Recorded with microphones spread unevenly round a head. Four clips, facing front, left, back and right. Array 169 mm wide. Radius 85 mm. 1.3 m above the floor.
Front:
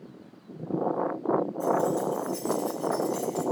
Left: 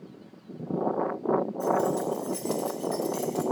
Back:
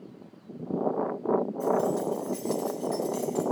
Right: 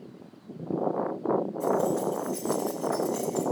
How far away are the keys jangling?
About 1.5 m.